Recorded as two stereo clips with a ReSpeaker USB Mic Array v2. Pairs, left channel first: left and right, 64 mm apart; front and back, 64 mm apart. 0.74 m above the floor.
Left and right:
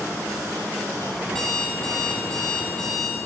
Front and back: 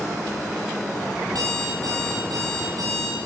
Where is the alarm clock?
170° left, 9 m.